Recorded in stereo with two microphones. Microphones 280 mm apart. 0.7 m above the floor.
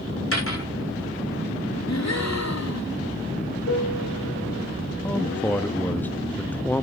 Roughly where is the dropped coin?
Left.